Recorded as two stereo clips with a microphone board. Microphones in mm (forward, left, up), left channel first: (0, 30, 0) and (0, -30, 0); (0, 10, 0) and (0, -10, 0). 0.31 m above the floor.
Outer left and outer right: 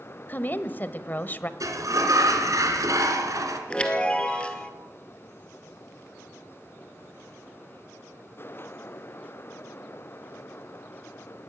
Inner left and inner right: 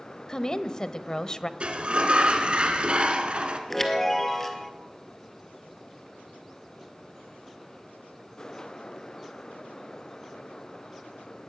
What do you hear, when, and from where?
0.3 s a woman speaking: 35° left (ahead or behind), 1.1 m
1.6 s a sliding door: 70° right (ahead or behind), 2.5 m
3.7 s a chime: 20° left (ahead or behind), 2 m